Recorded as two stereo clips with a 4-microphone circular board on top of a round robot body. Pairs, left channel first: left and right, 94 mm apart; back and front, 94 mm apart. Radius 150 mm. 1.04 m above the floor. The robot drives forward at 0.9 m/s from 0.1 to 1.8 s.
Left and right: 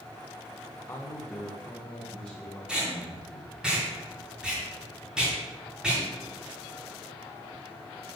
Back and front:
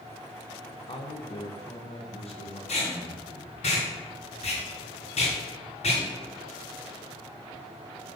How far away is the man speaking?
About 0.9 m.